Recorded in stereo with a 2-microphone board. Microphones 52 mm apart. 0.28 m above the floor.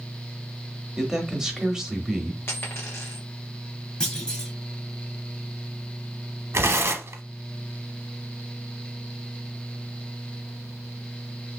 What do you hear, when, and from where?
1.0 s a man speaking: 10° right (ahead or behind), 1.0 m
2.5 s a dropped coin: 45° left (ahead or behind), 1.2 m
4.0 s a clunk: 15° left (ahead or behind), 1.5 m
6.5 s tearing paper: 60° right (ahead or behind), 0.7 m